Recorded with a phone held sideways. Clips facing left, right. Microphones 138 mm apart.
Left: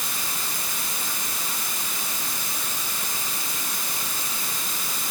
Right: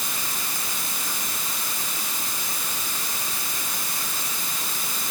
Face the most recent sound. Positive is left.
No sound to turn to.